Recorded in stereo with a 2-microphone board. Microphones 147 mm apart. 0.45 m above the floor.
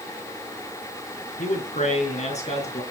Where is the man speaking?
55° left (ahead or behind), 5 m; by 2.8 s 45° left (ahead or behind), 5 m.